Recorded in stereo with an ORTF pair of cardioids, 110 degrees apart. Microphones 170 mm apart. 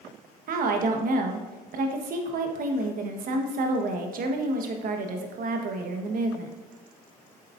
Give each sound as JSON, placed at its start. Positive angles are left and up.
{"t": 0.5, "sound": "a woman speaking", "azimuth_deg": -60, "distance_m": 1.3}